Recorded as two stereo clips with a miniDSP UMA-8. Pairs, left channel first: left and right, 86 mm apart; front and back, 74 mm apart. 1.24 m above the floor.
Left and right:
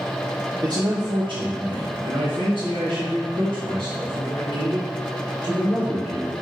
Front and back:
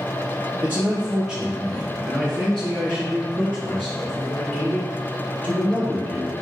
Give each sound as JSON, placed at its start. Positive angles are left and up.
{"t": 0.6, "sound": "a man speaking", "azimuth_deg": -125, "distance_m": 0.9}